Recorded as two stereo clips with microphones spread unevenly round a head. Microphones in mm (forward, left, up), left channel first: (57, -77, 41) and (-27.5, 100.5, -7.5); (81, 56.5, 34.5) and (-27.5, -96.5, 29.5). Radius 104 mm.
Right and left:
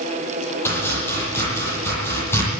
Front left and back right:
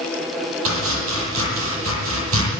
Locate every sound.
0.7 s chopping: 140° right, 9.5 m